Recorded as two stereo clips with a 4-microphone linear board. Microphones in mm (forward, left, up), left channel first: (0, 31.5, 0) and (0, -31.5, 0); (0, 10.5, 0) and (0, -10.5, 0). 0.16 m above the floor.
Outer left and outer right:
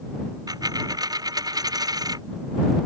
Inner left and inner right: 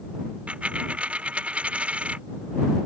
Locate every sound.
0.5 s a dropped coin: 90° right